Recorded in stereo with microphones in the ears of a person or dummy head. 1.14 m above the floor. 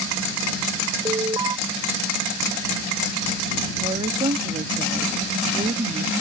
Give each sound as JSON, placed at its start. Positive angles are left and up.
{"t": 1.1, "sound": "an alarm", "side_deg": -20}
{"t": 3.8, "sound": "a woman speaking", "side_deg": -30}